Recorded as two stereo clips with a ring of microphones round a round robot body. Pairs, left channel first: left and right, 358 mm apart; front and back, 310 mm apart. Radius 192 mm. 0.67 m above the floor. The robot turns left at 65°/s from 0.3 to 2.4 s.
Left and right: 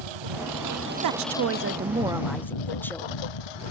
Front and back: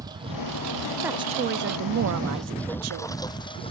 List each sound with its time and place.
0.0 s a lawn mower: 100° right; by 3.7 s 75° left
1.0 s a woman speaking: 100° right; by 3.2 s 175° left